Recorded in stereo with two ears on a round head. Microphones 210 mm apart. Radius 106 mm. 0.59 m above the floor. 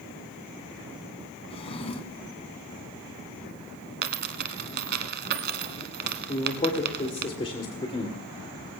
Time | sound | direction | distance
1.5 | a drawer | 25° left (ahead or behind) | 1.5 m
4.0 | a dropped coin | 45° right (ahead or behind) | 1.2 m
6.3 | a man speaking | 25° left (ahead or behind) | 1.9 m